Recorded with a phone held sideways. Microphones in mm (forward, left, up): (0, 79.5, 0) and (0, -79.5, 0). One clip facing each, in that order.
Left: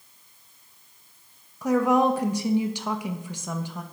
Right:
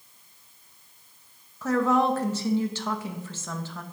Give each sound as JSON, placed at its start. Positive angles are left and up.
{"t": 1.6, "sound": "a woman speaking", "side_deg": 15, "distance_m": 0.7}